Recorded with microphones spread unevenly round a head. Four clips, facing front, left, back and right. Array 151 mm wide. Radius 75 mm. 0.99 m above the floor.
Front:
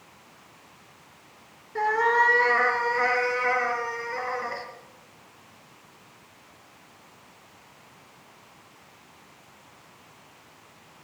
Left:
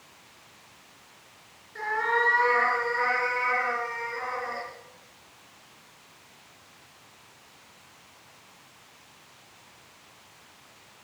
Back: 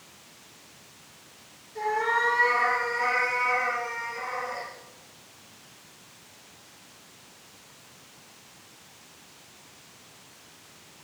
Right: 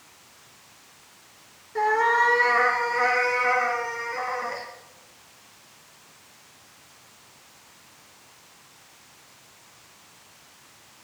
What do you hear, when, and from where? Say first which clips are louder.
1.8 s a cat meowing: right 6 dB, front 4 dB; 40° right, 3 m